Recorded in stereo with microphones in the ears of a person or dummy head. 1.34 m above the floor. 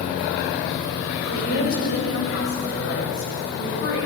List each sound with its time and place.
1.1 s a woman speaking: 70° left (ahead or behind), 7.5 m; by 4.1 s 60° left (ahead or behind), 10.5 m